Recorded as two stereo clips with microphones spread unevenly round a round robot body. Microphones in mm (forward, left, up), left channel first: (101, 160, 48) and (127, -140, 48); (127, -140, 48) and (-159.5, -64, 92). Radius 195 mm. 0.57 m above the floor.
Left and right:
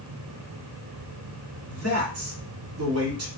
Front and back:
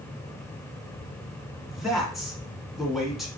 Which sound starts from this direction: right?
A man speaking, at 1.7 s.